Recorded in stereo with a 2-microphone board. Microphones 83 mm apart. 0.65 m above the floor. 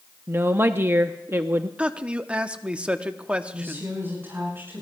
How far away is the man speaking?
About 0.7 m.